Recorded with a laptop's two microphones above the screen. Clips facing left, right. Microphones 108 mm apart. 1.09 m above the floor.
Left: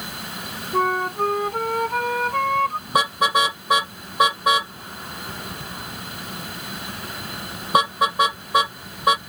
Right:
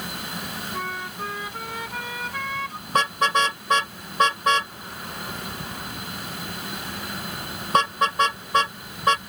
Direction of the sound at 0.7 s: 50° left (ahead or behind).